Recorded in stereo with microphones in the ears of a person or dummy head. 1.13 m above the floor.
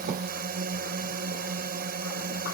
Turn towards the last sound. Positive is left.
turn(degrees=-50)  # may be behind; listen again after turning